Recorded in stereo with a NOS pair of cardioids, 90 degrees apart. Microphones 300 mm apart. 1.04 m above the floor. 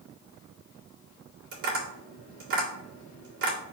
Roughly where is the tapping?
Right.